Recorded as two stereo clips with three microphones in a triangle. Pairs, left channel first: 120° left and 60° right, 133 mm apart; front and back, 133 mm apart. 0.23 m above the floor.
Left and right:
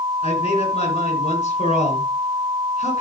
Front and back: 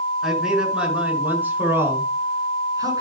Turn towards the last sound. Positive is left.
turn(degrees=125)